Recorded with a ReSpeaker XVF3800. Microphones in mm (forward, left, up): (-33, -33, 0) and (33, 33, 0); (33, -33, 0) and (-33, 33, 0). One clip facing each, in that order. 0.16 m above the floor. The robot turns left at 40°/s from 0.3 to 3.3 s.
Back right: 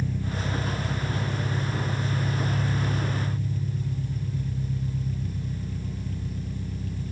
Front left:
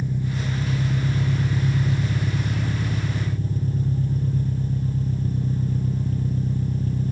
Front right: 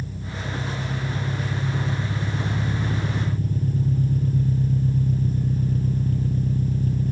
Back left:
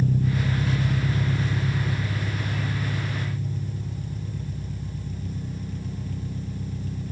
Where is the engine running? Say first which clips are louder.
Front left 3 dB, back left 8 dB; 115° left, 3 m; by 7.1 s 5° right, 3 m.